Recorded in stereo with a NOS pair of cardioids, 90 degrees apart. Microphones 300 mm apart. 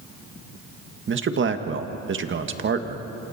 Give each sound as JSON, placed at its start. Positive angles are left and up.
{"t": 1.1, "sound": "a man speaking", "azimuth_deg": -40, "distance_m": 1.8}